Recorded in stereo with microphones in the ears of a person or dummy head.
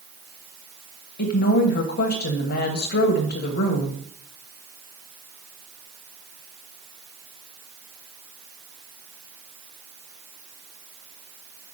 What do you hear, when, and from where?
1.2 s a woman speaking: 50° left (ahead or behind), 1.0 m